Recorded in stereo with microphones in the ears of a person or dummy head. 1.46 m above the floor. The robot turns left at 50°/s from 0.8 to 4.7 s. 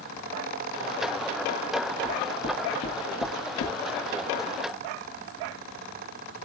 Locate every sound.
2.0 s knocking: 5° right (ahead or behind), 1.3 m; by 3.8 s 70° left (ahead or behind), 1.3 m